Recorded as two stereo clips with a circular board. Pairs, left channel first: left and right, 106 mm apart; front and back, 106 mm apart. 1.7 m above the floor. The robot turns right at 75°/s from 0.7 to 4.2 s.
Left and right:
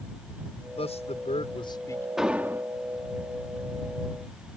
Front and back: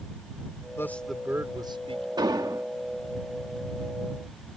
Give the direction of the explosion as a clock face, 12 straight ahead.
6 o'clock.